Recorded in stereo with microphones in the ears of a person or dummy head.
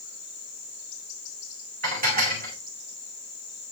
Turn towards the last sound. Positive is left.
turn(degrees=-45)  # may be behind; listen again after turning